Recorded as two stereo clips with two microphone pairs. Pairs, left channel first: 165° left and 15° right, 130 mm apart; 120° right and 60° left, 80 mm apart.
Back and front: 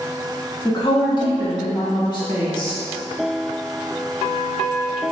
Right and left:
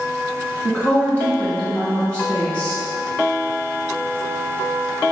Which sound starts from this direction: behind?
A woman speaking, at 0.7 s.